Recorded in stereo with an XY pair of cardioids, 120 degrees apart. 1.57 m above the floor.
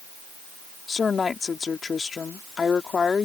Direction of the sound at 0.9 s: 30° left.